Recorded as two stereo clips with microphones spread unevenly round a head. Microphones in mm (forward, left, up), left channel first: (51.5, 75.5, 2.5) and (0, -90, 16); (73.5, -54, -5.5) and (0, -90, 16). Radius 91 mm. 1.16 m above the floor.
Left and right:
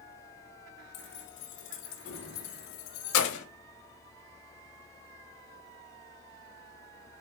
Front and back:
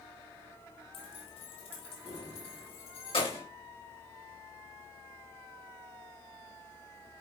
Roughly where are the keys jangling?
Ahead left.